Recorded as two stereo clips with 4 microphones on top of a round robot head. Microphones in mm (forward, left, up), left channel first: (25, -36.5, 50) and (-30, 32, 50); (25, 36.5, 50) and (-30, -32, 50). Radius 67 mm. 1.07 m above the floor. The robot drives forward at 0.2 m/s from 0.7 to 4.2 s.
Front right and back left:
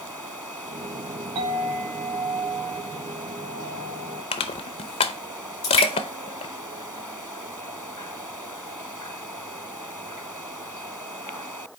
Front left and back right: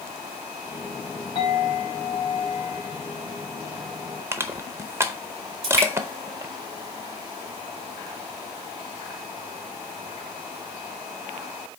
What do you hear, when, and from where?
1.4 s a clink: 90° left, 3 m; by 4.2 s 100° left, 3.5 m
4.3 s crushing: 65° right, 0.6 m
5.6 s dripping: 100° right, 2.5 m